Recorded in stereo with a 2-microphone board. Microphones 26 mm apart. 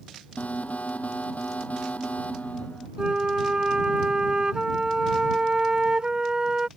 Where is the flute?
35° right (ahead or behind).